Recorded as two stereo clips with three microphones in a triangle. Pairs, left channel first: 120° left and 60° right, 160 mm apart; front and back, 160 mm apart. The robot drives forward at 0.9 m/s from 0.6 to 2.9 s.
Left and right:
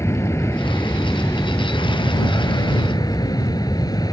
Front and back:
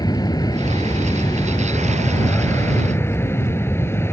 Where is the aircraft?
55° left; by 4.1 s 70° left.